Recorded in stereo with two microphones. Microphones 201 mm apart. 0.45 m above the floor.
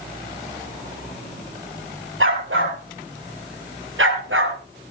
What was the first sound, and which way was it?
A dog barking, 85° right.